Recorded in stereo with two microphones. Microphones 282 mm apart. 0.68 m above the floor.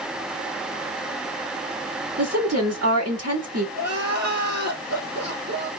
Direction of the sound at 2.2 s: 60° right (ahead or behind).